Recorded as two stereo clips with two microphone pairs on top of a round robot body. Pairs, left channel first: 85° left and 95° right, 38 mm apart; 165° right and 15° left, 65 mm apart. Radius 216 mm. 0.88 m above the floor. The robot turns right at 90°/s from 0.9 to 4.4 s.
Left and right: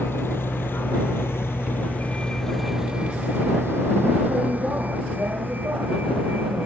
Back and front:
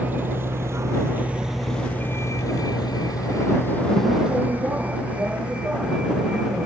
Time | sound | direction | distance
0.0 | a vehicle | 75° left | ?